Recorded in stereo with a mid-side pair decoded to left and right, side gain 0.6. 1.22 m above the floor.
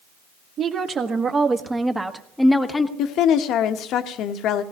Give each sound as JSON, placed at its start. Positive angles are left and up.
{"t": 0.6, "sound": "a woman speaking", "azimuth_deg": -40, "distance_m": 2.0}
{"t": 3.0, "sound": "a woman speaking", "azimuth_deg": 60, "distance_m": 1.3}